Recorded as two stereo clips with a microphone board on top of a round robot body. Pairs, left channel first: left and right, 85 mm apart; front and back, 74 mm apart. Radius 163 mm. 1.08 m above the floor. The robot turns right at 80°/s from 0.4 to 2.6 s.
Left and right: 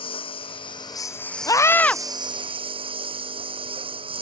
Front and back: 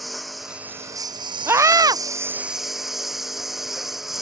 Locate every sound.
0.0 s a lawn mower: 90° left; by 4.2 s 95° right
1.5 s a scream: 130° left; by 2.0 s 170° left